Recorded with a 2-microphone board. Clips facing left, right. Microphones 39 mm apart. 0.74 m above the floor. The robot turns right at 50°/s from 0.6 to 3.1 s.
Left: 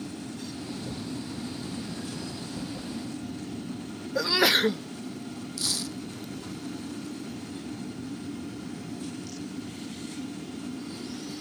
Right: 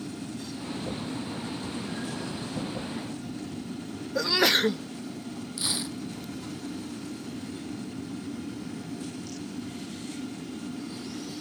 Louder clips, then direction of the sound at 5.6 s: Right 1 dB; 20° right (ahead or behind).